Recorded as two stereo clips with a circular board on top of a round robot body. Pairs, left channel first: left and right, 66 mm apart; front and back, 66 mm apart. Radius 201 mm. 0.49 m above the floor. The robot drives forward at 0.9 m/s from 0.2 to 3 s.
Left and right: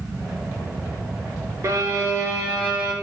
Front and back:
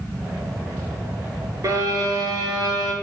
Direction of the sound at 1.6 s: 135° right.